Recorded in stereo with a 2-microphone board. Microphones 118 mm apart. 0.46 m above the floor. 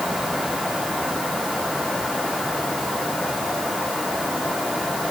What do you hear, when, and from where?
Only background noise.